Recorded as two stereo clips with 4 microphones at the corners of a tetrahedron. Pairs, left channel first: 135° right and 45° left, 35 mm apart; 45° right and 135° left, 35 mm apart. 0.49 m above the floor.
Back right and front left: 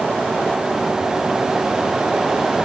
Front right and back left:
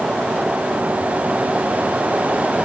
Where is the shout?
No shout in this recording.